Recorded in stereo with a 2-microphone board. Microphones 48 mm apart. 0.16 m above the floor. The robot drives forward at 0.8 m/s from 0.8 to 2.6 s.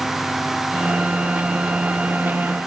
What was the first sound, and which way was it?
Only background noise.